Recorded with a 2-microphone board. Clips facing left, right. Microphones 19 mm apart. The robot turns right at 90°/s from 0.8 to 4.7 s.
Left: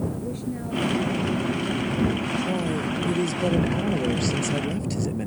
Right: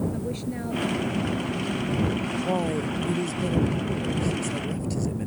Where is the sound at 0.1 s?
30° right; by 2.3 s 110° left.